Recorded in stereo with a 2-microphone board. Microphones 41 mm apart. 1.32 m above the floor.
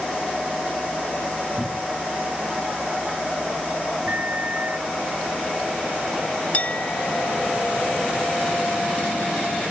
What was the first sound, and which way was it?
A cupboard door, 10° left (ahead or behind).